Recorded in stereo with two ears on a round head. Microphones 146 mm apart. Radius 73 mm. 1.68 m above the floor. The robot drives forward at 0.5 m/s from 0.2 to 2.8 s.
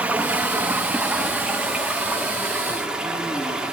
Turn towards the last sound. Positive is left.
turn(degrees=-5)  # may be behind; listen again after turning